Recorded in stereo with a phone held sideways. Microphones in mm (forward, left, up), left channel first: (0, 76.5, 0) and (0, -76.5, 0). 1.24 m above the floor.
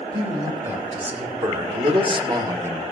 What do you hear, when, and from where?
0.1 s a man speaking: 45° right (ahead or behind), 3.5 m; by 2.8 s 5° right (ahead or behind), 0.6 m